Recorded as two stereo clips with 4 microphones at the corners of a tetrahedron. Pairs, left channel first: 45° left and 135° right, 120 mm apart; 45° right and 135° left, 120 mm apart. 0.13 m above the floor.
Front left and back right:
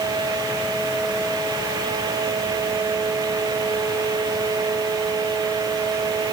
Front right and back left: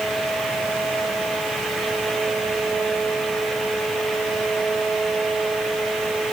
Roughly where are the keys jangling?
I don't hear keys jangling.